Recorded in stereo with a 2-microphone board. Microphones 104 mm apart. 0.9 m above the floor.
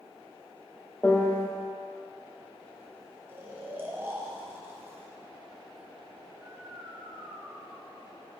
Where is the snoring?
20° right (ahead or behind), 0.8 m.